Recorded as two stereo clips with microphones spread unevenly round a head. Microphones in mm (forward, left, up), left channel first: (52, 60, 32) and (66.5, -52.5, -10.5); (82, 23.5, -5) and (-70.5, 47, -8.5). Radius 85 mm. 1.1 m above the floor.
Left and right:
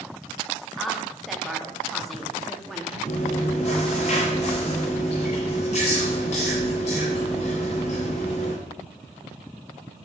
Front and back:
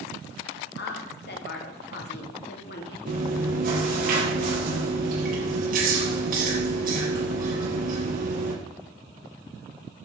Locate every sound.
0.8 s a woman speaking: 5° left, 2 m
3.1 s chewing: 140° left, 6 m